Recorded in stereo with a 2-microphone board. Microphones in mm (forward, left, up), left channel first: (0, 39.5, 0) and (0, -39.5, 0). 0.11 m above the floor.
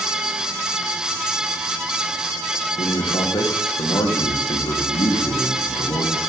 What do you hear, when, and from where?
2.8 s a man speaking: 60° left (ahead or behind), 5 m